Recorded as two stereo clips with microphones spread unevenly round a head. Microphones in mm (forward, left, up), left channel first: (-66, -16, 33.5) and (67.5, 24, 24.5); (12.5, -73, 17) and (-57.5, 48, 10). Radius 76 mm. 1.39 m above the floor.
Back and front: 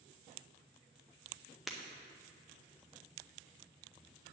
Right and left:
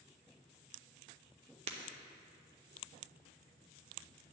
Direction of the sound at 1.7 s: 110° left.